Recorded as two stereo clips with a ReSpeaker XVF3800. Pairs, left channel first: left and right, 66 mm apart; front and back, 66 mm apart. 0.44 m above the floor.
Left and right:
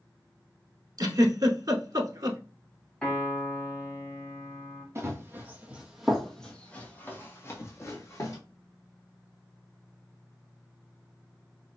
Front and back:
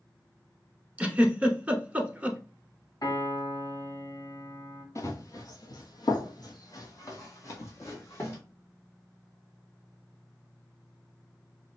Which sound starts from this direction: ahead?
A piano, at 3.0 s.